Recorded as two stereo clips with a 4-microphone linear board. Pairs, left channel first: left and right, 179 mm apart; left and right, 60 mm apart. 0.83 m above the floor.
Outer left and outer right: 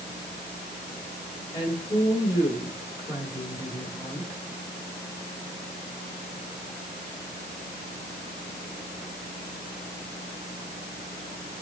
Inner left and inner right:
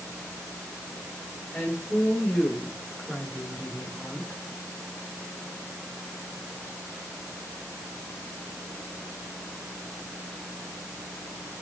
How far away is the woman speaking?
About 8 m.